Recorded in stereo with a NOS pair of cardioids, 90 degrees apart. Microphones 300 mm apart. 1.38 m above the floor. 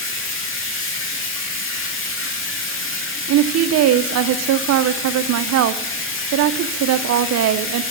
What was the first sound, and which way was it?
Running water, 45° left.